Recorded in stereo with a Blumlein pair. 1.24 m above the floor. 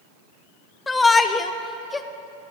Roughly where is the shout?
Ahead.